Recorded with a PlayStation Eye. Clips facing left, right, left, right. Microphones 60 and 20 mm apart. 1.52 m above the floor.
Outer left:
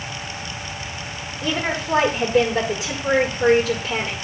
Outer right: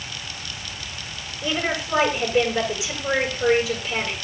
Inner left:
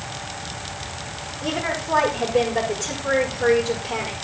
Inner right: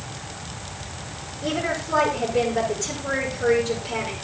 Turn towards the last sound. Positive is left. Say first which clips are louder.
# outer left 1 dB, even
turn(degrees=55)  # may be behind; listen again after turning